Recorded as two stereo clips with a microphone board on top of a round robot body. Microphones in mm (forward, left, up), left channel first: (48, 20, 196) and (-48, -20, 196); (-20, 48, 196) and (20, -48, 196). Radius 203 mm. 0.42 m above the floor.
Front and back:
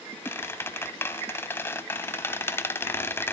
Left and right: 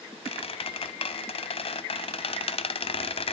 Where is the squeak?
90° left, 1.0 m.